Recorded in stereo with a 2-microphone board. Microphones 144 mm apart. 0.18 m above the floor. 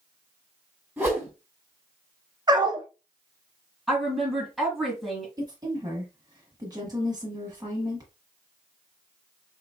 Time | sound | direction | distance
1.0 | a whoosh | 15° right (ahead or behind) | 1.8 m
2.5 | a dog barking | 30° right (ahead or behind) | 0.6 m
3.9 | a woman speaking | centre (ahead or behind) | 1.9 m
5.4 | a woman speaking | 25° right (ahead or behind) | 1.0 m